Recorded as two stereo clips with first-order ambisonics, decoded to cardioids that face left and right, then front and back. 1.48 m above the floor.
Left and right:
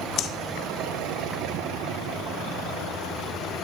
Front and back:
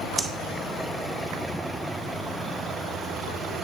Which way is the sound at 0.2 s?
110° left.